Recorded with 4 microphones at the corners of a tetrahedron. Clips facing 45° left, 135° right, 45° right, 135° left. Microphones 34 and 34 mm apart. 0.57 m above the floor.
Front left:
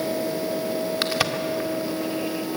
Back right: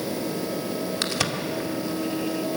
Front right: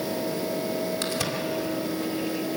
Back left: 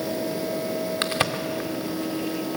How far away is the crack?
About 1.9 m.